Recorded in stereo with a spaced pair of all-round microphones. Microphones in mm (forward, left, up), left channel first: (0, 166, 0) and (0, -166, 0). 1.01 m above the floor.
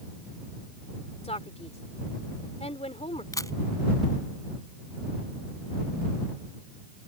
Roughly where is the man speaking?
Centre.